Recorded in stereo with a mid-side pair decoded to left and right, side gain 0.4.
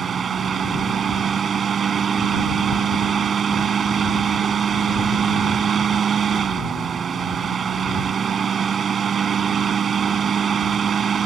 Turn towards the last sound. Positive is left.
turn(degrees=-55)